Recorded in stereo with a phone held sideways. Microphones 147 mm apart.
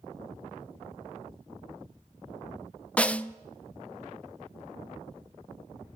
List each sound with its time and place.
3.0 s a snare drum: 10° left (ahead or behind), 0.6 m